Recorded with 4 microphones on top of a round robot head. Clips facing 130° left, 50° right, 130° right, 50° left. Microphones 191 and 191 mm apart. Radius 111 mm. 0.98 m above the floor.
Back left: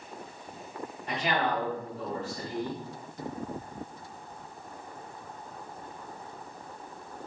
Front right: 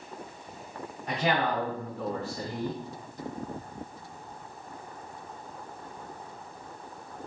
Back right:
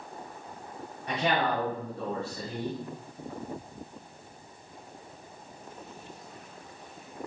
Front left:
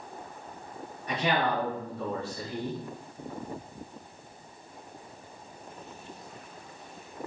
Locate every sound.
1.1 s a man speaking: 100° right, 2 m